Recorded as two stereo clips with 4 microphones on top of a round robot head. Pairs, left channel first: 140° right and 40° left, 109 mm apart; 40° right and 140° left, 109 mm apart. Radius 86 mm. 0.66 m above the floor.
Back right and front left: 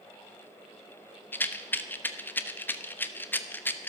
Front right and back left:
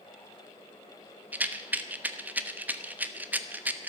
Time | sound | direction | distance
1.3 | a rattle | 170° right | 1.1 m